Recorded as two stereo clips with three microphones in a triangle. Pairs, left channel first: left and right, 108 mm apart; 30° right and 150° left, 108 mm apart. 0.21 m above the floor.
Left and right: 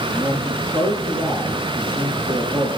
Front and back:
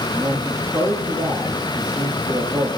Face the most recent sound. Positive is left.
turn(degrees=-130)